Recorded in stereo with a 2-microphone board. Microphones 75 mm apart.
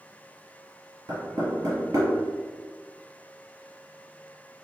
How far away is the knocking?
About 1.9 m.